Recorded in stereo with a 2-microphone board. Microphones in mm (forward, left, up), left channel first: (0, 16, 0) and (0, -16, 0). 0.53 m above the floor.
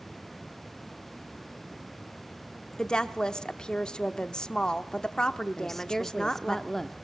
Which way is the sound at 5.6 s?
10° left (ahead or behind).